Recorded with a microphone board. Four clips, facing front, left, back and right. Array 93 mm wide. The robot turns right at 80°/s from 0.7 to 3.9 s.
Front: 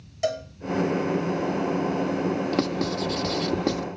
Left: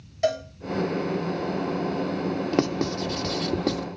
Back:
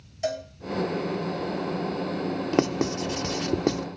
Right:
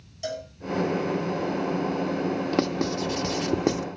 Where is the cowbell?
50° left, 3 m.